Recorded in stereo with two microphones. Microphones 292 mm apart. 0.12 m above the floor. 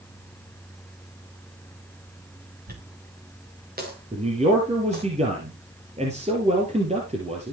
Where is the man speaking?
20° right (ahead or behind), 3 m.